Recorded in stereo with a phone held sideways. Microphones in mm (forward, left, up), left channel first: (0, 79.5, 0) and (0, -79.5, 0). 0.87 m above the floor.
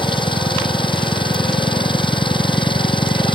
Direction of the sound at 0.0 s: 35° left (ahead or behind).